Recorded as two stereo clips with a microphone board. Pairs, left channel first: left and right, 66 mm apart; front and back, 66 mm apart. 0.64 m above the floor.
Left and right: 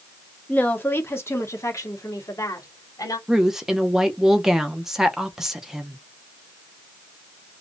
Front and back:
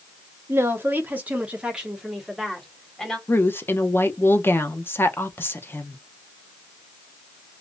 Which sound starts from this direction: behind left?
A woman speaking, at 0.5 s.